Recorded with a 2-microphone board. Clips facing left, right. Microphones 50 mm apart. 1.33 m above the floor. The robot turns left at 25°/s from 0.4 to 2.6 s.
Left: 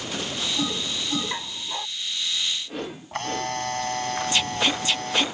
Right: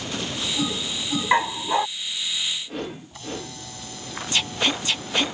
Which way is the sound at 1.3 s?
60° right (ahead or behind).